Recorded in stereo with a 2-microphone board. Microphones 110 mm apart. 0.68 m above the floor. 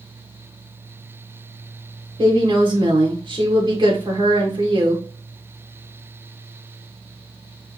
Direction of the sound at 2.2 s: 45° right (ahead or behind).